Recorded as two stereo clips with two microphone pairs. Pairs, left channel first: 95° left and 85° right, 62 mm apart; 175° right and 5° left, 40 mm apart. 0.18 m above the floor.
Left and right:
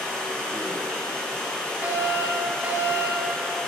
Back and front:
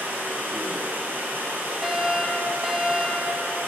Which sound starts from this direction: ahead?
Running water, at 0.0 s.